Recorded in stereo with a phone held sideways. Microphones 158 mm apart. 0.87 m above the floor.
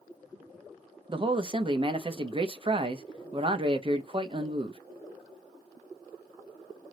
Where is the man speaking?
35° right (ahead or behind), 0.6 m.